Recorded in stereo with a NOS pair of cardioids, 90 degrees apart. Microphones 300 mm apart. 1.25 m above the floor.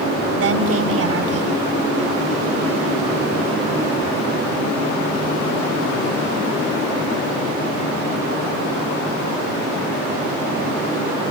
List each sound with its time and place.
0.3 s a woman speaking: 55° right, 7 m